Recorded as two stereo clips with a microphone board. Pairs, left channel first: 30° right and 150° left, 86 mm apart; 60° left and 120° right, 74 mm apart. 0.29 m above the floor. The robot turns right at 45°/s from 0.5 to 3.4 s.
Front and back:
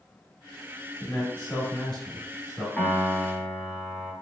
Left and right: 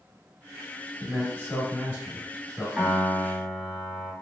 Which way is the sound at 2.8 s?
75° right.